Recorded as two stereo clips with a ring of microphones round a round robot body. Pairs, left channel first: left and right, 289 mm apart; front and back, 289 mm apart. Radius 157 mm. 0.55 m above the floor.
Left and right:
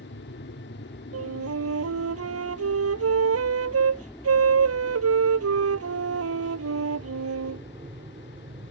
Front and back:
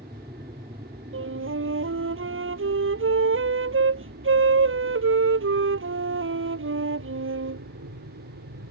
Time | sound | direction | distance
0.0 | an aircraft | 110° left | ?
1.1 | a flute | 130° right | ?